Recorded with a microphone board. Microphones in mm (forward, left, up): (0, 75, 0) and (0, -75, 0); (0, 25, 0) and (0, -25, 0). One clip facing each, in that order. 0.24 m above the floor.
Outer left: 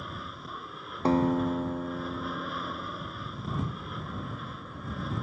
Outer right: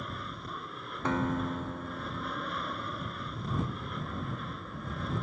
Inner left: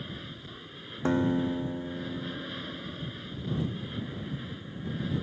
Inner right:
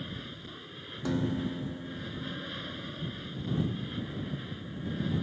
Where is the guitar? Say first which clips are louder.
Outer left 6 dB, inner left 5 dB; 35° left (ahead or behind).